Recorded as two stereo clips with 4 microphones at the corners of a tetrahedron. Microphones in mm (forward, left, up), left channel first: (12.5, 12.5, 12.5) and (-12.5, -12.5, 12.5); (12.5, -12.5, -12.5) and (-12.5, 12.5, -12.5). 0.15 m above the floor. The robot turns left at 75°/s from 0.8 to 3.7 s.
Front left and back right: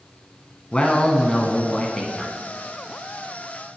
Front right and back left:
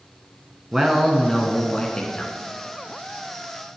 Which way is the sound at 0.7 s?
80° left.